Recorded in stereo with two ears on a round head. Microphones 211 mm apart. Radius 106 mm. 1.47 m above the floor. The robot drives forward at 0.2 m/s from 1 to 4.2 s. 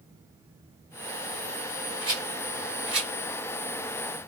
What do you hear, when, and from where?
2.0 s a rattle: 5° right (ahead or behind), 2 m